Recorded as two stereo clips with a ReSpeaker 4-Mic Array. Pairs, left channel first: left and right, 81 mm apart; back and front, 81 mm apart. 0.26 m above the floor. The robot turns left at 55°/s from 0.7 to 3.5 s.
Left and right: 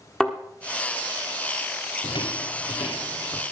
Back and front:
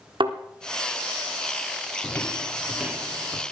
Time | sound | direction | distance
0.2 | a thud | 5° left | 1.3 m
2.0 | footsteps | 115° left | 1.1 m